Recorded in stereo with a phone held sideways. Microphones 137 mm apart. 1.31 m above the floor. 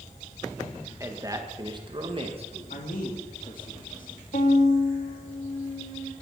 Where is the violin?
70° left (ahead or behind), 3 m.